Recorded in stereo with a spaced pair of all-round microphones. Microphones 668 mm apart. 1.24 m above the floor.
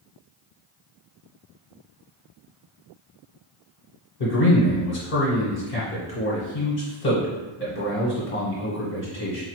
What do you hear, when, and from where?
4.2 s a man speaking: 65° left (ahead or behind), 1.1 m